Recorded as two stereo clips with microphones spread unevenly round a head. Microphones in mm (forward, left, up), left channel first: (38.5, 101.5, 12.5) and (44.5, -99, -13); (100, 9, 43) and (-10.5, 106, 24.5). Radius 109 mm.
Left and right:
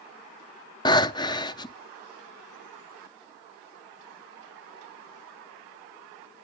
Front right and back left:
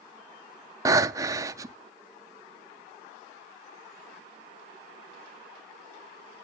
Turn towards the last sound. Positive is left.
turn(degrees=80)